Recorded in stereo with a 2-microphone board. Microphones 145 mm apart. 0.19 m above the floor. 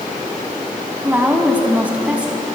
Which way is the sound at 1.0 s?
10° right (ahead or behind).